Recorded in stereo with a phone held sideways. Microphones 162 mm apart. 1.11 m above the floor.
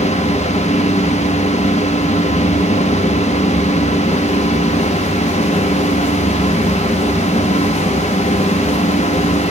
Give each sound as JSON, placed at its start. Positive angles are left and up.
{"t": 0.0, "sound": "a fan", "side_deg": 45, "distance_m": 1.3}